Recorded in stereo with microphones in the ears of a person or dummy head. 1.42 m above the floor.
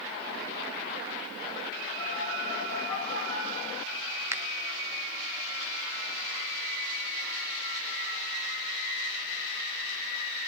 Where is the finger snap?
5° right (ahead or behind), 0.5 m.